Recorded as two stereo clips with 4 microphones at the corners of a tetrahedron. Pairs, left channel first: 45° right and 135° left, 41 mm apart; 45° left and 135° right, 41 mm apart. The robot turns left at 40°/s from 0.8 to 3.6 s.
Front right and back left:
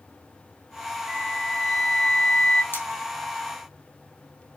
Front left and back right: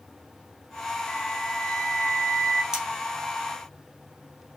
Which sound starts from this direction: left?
A flute, at 1.1 s.